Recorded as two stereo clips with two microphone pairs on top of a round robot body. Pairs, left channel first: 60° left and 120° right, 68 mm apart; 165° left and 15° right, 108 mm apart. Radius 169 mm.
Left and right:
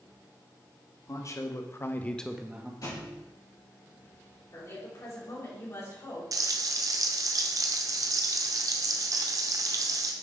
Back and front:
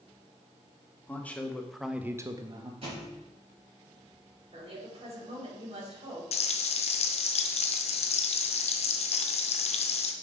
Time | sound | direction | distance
1.1 | a man speaking | 95° left | 1.9 m
2.8 | a thud | 25° left | 4.5 m
4.5 | a woman speaking | 15° left | 4.5 m
6.3 | frying | 160° right | 0.5 m